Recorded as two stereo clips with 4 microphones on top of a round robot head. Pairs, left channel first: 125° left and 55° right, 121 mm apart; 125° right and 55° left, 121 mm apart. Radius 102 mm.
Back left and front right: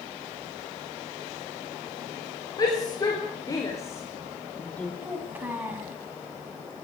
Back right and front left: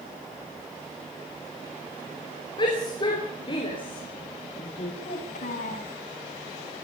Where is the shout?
175° right, 5 m; by 4.9 s 155° right, 2.0 m.